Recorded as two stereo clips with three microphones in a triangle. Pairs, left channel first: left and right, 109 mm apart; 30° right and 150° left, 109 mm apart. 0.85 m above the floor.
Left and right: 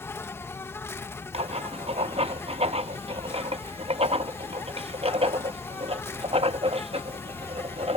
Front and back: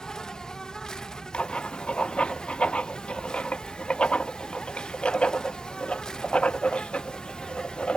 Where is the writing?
110° right.